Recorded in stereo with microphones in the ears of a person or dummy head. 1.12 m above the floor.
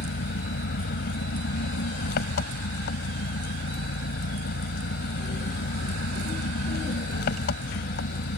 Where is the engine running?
55° left (ahead or behind).